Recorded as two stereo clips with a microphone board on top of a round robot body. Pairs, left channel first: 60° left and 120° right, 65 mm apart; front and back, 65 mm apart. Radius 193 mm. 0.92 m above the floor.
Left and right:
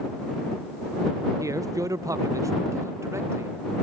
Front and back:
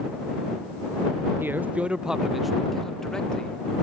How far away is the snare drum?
I don't hear a snare drum.